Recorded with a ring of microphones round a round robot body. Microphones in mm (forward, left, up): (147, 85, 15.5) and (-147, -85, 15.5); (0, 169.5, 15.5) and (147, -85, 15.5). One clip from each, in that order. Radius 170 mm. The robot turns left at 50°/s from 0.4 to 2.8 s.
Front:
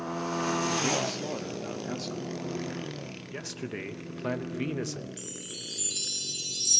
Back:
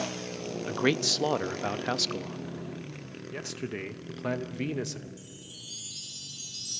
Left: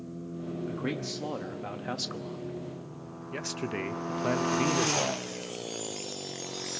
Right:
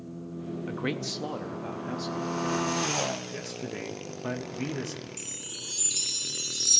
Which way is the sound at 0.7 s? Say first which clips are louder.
Back 2 dB, right 3 dB; 115° right.